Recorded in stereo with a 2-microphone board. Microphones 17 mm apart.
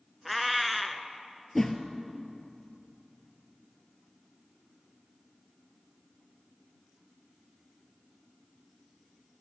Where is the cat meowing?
Centre (ahead or behind), 0.6 m.